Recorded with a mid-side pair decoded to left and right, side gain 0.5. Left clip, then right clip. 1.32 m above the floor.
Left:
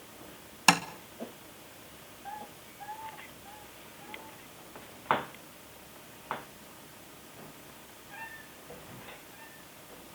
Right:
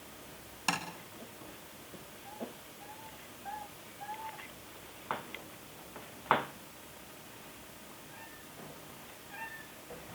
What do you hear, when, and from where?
0.7 s tapping: 60° left, 2.5 m